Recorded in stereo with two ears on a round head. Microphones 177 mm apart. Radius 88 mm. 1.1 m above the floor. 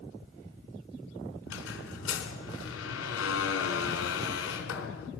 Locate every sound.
1.5 s a squeak: 70° left (ahead or behind), 3.5 m